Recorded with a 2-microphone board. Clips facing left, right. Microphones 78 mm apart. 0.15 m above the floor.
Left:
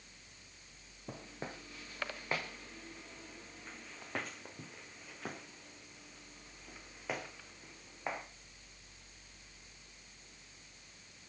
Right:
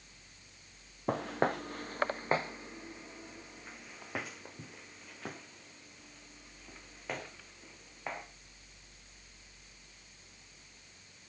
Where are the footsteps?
80° right, 0.7 m; by 8.2 s 5° left (ahead or behind), 4.5 m.